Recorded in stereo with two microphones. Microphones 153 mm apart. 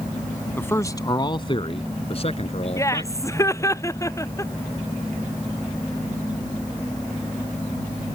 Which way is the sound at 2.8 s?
20° left (ahead or behind).